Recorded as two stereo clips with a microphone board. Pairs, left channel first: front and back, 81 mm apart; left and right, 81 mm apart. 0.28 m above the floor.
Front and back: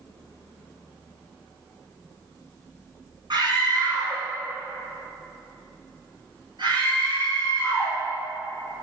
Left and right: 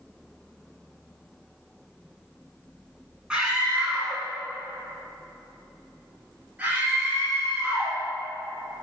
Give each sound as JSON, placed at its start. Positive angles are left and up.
{"t": 3.3, "sound": "a scream", "azimuth_deg": -170, "distance_m": 3.0}